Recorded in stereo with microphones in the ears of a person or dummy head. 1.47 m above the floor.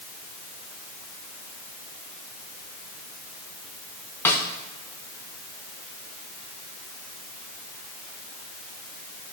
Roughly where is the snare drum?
Centre.